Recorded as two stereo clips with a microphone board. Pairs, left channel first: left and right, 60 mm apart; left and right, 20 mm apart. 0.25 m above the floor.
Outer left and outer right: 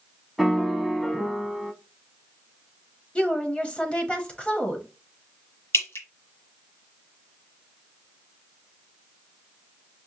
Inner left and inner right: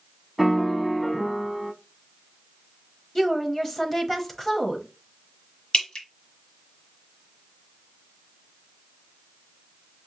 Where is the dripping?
50° left (ahead or behind), 1.3 m.